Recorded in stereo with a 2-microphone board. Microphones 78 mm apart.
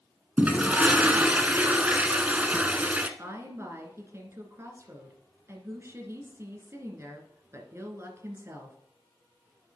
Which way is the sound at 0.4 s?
20° right (ahead or behind).